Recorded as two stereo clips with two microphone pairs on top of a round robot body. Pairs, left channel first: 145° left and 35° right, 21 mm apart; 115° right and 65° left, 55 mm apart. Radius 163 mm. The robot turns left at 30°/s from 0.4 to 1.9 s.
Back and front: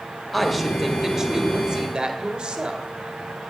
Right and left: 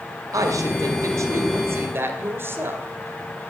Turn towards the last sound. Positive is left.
turn(degrees=15)